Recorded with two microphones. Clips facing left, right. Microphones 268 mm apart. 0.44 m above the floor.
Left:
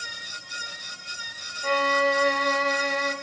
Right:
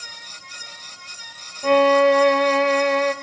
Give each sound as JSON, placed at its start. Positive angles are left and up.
{"t": 1.6, "sound": "a violin", "side_deg": -70, "distance_m": 1.0}